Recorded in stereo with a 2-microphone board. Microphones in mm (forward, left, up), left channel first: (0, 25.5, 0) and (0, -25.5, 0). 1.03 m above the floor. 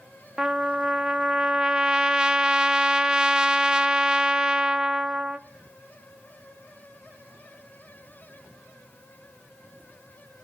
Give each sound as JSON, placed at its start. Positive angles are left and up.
{"t": 0.4, "sound": "a trumpet", "side_deg": -15, "distance_m": 0.7}